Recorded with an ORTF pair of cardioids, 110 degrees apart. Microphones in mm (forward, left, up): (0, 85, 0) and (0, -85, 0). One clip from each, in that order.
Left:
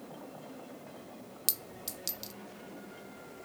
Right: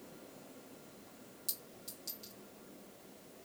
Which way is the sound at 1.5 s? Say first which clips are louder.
Left 8 dB; 65° left.